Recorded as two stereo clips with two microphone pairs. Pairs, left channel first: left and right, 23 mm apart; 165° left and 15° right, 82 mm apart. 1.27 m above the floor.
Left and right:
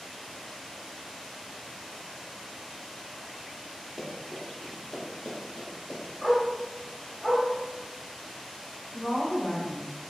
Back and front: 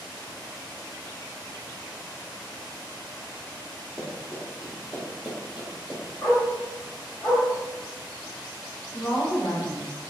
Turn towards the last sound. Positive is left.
turn(degrees=115)